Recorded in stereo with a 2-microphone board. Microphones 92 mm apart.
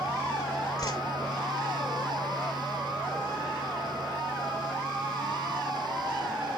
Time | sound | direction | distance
0.8 | a whoosh | 45° left (ahead or behind) | 0.8 m